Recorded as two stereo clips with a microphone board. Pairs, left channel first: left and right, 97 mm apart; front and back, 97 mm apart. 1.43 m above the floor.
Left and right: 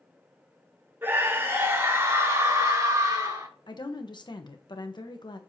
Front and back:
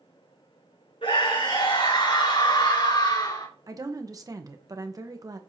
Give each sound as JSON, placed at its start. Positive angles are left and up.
{"t": 1.0, "sound": "a scream", "azimuth_deg": -25, "distance_m": 4.5}
{"t": 3.7, "sound": "a woman speaking", "azimuth_deg": 125, "distance_m": 1.1}